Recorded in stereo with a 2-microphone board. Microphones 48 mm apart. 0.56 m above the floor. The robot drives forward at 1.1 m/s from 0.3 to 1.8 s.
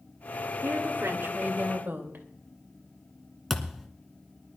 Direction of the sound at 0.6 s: 60° right (ahead or behind).